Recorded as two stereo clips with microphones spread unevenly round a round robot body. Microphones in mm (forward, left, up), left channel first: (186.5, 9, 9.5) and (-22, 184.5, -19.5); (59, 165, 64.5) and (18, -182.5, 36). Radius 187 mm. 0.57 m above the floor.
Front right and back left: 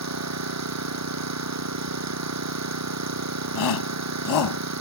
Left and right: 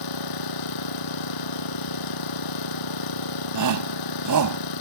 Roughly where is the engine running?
Behind left.